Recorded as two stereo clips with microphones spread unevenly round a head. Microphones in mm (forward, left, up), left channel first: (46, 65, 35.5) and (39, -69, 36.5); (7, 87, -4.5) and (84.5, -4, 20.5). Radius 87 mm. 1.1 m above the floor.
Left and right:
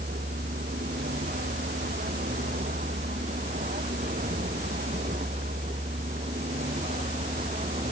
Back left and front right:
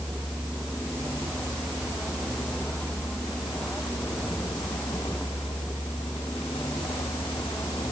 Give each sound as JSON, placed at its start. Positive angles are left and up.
{"t": 0.0, "sound": "a vehicle", "azimuth_deg": -140}